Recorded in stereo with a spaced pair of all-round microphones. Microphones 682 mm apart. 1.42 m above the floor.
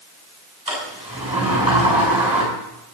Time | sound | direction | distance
0.7 | a sliding door | 10° right (ahead or behind) | 7.5 m